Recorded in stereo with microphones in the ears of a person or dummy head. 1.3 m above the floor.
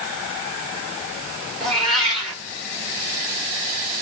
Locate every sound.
1.6 s a cat meowing: 5° left (ahead or behind), 1.0 m